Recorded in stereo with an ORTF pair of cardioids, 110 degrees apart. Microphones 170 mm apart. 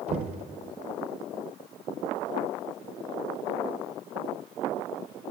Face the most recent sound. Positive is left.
turn(degrees=-40)